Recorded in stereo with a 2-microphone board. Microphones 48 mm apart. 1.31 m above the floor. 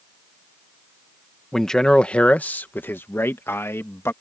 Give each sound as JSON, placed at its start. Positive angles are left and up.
{"t": 1.5, "sound": "a man speaking", "side_deg": 10}